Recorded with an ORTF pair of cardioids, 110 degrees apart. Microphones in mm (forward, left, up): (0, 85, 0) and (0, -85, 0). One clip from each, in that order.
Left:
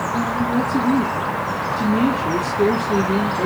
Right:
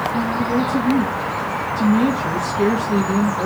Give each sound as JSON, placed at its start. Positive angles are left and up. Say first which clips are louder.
{"t": 0.1, "sound": "a woman speaking", "louder": "even", "azimuth_deg": -25, "distance_m": 1.7}